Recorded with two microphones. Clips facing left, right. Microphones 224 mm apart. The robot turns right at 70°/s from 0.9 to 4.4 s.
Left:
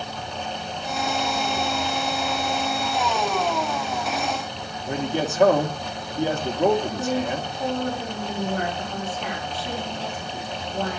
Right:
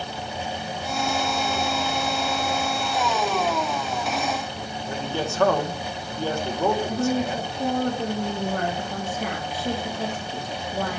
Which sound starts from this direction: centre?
A man speaking, at 4.9 s.